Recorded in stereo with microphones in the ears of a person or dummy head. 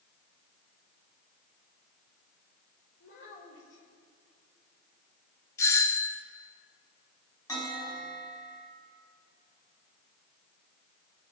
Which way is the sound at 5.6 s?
20° left (ahead or behind).